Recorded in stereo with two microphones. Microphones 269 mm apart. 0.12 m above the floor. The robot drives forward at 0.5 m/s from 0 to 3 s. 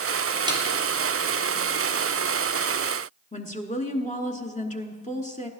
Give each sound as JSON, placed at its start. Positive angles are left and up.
{"t": 0.5, "sound": "a snare drum", "side_deg": -15, "distance_m": 1.9}
{"t": 3.3, "sound": "a woman speaking", "side_deg": 30, "distance_m": 1.1}